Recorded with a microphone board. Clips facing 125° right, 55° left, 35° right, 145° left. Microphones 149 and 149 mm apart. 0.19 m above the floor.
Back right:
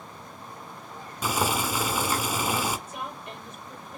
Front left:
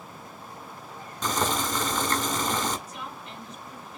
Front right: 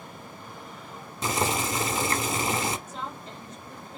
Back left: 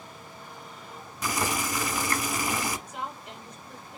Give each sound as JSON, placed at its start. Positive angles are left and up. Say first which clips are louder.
{"t": 1.2, "sound": "boiling", "louder": "even, front right 3 dB", "azimuth_deg": -55, "distance_m": 0.7}
{"t": 2.9, "sound": "a woman speaking", "louder": "back right 2 dB, even", "azimuth_deg": -140, "distance_m": 5.0}